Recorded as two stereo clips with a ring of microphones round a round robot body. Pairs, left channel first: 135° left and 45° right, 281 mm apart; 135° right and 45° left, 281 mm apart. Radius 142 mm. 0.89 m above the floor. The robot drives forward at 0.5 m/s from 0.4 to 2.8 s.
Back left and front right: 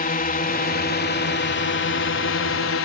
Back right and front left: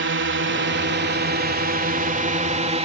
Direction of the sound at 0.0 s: 80° left.